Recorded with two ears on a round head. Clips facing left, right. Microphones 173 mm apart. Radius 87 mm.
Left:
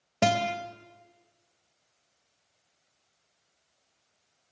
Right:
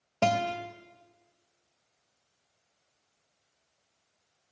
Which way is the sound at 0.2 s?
10° left (ahead or behind).